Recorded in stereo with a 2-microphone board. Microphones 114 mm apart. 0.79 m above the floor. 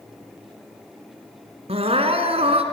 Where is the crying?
70° right (ahead or behind), 1.8 m.